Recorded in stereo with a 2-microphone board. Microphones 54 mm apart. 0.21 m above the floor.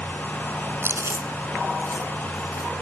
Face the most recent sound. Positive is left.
turn(degrees=-55)  # may be behind; listen again after turning